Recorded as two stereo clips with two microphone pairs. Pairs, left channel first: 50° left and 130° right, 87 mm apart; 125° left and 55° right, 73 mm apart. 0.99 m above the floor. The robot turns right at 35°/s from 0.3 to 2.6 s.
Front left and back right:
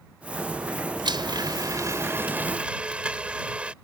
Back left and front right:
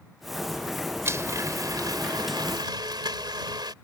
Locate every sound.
1.1 s a blender: 110° right; by 3.7 s 55° right